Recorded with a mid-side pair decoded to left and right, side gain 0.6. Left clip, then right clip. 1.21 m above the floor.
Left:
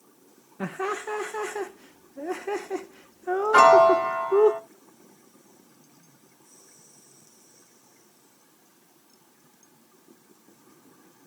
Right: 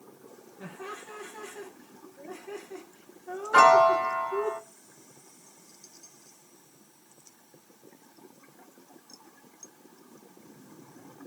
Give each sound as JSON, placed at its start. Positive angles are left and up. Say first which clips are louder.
{"t": 0.6, "sound": "laughter", "louder": "left 11 dB", "azimuth_deg": 60, "distance_m": 0.5}
{"t": 3.5, "sound": "a piano", "louder": "left 3 dB", "azimuth_deg": 15, "distance_m": 1.3}